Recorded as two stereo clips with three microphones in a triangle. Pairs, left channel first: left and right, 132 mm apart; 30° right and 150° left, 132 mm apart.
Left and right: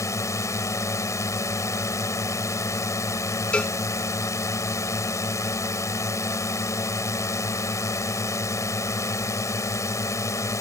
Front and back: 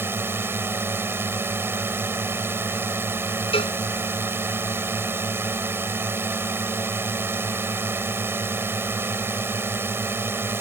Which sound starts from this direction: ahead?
A cowbell, at 3.5 s.